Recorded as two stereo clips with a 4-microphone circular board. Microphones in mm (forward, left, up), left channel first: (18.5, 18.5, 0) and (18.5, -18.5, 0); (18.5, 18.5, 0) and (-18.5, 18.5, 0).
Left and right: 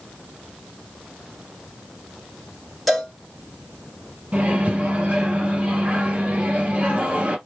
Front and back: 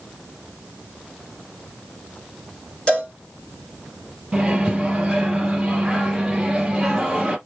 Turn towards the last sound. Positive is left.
turn(degrees=-110)